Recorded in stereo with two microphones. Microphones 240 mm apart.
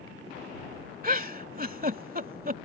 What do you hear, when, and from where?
1.0 s a giggle: 35° right (ahead or behind)